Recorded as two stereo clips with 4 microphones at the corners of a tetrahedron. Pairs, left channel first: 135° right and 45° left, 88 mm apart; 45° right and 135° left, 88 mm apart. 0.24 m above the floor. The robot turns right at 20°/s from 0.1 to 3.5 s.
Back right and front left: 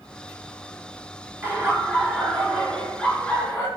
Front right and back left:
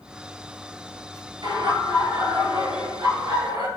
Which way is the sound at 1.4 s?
115° left.